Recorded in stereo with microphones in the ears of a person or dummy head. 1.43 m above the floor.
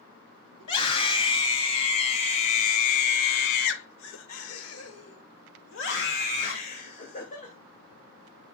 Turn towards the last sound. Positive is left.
turn(degrees=35)  # may be behind; listen again after turning